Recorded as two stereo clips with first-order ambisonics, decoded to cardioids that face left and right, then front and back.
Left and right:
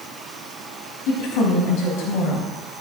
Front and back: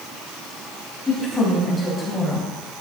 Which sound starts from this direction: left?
A woman speaking, at 1.1 s.